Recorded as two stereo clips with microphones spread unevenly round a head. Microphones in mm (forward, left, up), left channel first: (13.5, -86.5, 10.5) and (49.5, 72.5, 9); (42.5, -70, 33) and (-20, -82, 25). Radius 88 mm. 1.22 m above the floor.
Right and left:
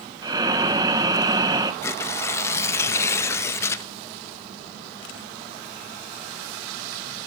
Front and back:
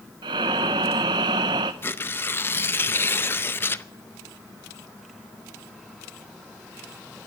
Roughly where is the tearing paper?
Ahead right.